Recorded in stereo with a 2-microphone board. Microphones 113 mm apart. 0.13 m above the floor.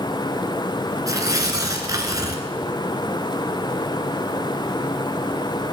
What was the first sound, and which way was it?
Tearing paper, 35° right (ahead or behind).